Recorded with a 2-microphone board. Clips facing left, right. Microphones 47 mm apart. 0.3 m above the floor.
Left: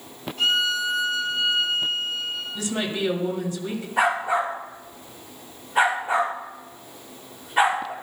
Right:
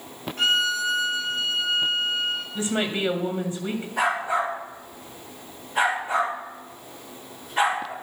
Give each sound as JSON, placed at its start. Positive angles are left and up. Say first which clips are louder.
{"t": 0.4, "sound": "a violin", "louder": "even", "side_deg": -65, "distance_m": 4.0}
{"t": 2.5, "sound": "a woman speaking", "louder": "right 1 dB", "side_deg": -30, "distance_m": 1.8}
{"t": 4.0, "sound": "a dog barking", "louder": "left 2 dB", "side_deg": 10, "distance_m": 7.5}